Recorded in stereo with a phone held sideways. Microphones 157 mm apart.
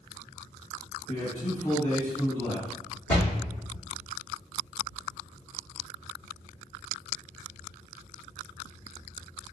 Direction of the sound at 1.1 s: 40° left (ahead or behind).